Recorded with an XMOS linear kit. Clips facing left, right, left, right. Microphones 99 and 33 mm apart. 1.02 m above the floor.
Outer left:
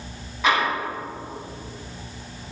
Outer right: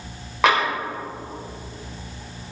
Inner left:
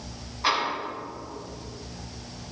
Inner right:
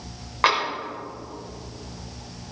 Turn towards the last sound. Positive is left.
turn(degrees=-85)